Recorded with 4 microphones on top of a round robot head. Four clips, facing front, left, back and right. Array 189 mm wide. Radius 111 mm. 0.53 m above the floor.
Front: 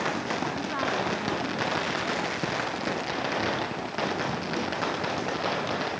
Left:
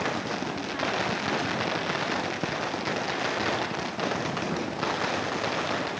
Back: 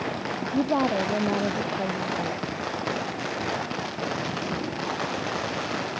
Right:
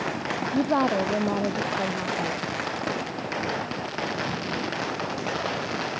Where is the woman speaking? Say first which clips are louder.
Right 8 dB, back 6 dB; 135° right.